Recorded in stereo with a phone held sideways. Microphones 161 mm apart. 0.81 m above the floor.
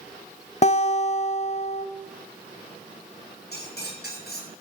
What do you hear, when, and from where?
0.6 s a guitar: 45° left (ahead or behind), 0.8 m
3.5 s cutlery clinking: 85° left, 5.5 m